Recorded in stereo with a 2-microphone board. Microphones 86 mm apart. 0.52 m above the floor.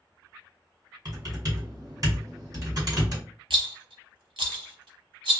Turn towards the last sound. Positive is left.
turn(degrees=-75)  # may be behind; listen again after turning